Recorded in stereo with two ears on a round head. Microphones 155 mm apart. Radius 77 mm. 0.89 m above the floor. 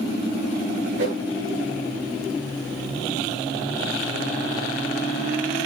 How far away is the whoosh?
About 8 m.